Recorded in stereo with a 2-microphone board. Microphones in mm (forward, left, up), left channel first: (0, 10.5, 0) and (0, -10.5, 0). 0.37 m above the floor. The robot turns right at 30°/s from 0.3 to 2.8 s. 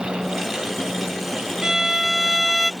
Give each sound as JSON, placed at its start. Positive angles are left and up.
{"t": 1.6, "sound": "a violin", "azimuth_deg": -30}